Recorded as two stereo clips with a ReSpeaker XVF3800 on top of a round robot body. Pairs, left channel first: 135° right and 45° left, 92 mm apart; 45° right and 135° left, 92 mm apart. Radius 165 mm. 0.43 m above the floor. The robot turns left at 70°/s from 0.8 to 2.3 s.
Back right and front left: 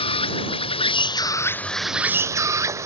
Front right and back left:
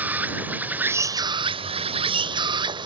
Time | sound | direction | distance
0.0 | an insect | 150° right | ?